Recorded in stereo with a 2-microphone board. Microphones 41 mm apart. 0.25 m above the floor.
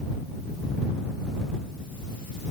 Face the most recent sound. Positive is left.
No sound to turn to.